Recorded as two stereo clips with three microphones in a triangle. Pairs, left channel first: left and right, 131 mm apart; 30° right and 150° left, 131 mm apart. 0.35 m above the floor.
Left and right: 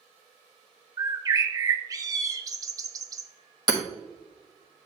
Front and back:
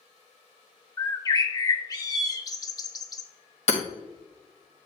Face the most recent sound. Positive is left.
turn(degrees=-40)